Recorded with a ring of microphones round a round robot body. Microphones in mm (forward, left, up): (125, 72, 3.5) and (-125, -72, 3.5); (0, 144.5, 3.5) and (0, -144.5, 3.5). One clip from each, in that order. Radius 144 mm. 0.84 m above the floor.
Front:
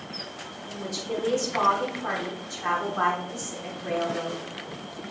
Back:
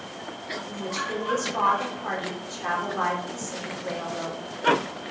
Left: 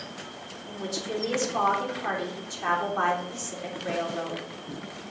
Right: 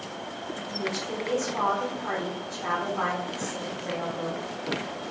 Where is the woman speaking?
120° left, 3 m.